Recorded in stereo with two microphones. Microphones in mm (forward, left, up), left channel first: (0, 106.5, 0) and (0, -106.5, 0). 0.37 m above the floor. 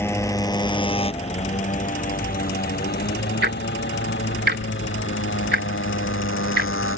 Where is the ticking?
55° right (ahead or behind).